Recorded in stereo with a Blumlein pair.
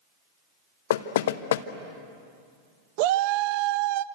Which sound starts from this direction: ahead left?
Knocking, at 0.9 s.